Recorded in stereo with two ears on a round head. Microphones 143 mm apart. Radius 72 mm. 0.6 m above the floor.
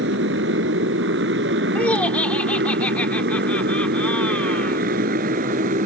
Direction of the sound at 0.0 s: 85° right.